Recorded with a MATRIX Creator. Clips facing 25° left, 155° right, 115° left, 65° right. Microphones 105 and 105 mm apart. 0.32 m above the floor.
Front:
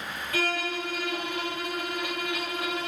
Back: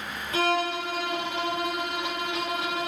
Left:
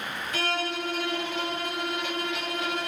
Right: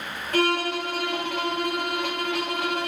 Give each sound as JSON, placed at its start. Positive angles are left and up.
{"t": 0.3, "sound": "a violin", "azimuth_deg": -95, "distance_m": 1.4}